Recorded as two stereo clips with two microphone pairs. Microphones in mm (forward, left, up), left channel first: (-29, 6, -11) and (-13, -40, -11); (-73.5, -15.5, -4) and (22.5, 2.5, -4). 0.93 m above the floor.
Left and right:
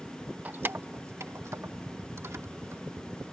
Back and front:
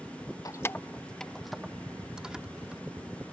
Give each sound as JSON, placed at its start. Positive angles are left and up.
{"t": 0.5, "sound": "keys jangling", "azimuth_deg": -125}